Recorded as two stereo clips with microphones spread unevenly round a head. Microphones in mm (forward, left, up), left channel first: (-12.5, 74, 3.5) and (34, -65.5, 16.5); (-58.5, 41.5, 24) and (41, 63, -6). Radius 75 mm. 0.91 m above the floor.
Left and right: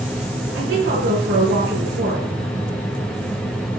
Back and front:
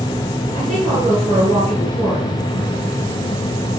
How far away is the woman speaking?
About 9.5 m.